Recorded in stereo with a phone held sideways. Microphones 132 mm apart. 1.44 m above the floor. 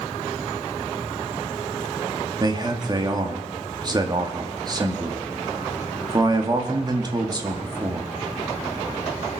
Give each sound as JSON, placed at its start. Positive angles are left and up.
{"t": 2.4, "sound": "a man speaking", "side_deg": -30, "distance_m": 2.0}